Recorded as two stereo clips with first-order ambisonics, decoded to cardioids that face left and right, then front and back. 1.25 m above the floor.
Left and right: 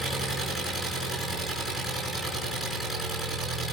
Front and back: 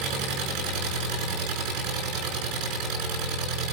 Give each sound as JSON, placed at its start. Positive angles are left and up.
{"t": 0.0, "sound": "an engine running", "azimuth_deg": -175, "distance_m": 5.5}